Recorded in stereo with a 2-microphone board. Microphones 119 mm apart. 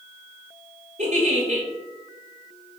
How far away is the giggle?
About 1.3 m.